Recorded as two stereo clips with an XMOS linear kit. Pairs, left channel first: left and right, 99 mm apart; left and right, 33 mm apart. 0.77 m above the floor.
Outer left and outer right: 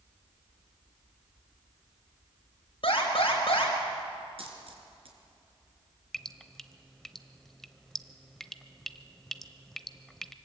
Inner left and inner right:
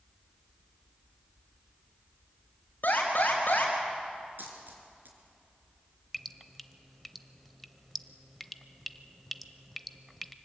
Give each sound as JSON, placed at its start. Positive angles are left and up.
{"t": 2.8, "sound": "an alarm", "side_deg": 65, "distance_m": 4.5}
{"t": 4.4, "sound": "a dropped coin", "side_deg": -70, "distance_m": 3.5}
{"t": 6.1, "sound": "dripping", "side_deg": 5, "distance_m": 0.7}